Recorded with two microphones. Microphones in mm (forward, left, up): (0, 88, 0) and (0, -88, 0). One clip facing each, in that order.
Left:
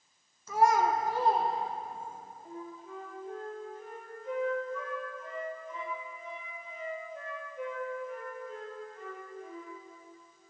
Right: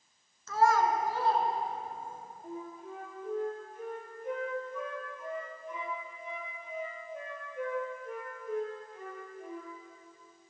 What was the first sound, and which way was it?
A child speaking, 15° left (ahead or behind).